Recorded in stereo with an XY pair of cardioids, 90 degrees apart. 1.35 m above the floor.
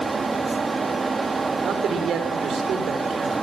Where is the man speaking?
65° right, 4.5 m.